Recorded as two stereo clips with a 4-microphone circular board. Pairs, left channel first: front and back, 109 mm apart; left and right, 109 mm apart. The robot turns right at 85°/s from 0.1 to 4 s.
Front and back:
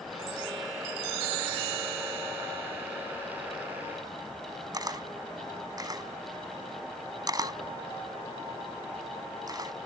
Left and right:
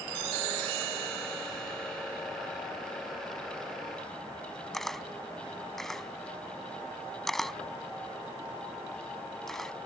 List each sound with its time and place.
4.7 s a camera shutter: 175° left